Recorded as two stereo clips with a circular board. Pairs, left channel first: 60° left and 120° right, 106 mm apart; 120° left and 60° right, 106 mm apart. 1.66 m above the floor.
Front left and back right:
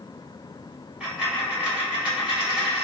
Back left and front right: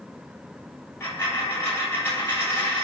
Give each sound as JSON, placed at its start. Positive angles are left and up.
{"t": 1.0, "sound": "a dropped coin", "azimuth_deg": 170, "distance_m": 1.7}